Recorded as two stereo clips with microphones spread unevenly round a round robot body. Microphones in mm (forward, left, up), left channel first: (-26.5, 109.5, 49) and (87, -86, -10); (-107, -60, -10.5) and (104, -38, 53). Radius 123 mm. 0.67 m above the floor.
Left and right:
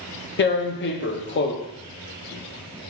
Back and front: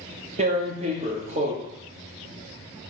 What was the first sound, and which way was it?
Tearing paper, 75° left.